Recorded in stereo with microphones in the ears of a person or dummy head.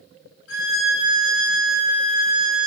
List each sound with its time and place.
0.5 s a violin: 70° left (ahead or behind), 3.5 m